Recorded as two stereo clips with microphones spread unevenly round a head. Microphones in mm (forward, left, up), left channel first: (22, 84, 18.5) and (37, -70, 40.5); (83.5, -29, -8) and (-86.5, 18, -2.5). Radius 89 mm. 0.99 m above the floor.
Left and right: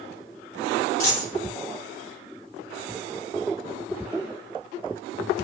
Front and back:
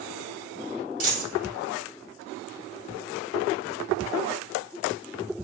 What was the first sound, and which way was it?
A dropped coin, 115° left.